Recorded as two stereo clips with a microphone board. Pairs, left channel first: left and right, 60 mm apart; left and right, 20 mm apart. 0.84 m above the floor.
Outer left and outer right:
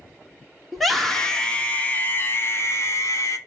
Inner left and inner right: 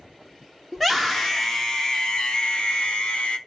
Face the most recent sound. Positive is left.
turn(degrees=55)  # may be behind; listen again after turning